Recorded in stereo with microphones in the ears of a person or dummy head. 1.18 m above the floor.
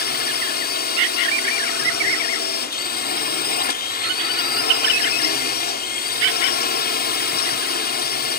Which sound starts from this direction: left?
A drone, at 0.0 s.